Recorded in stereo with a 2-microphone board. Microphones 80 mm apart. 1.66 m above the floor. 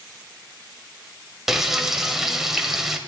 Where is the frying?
5° right (ahead or behind), 1.5 m.